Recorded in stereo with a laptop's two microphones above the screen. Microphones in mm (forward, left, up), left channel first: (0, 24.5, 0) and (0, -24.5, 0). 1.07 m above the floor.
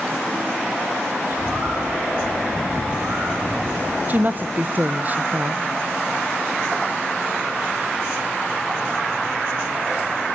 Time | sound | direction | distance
1.3 | a bird | 40° right (ahead or behind) | 6 m
4.1 | a woman speaking | 35° right (ahead or behind) | 0.6 m